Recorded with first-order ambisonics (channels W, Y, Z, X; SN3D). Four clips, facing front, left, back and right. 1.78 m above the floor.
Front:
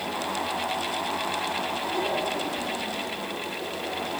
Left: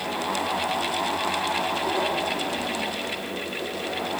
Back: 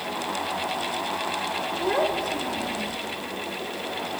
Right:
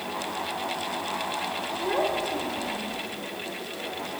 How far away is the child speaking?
About 6 m.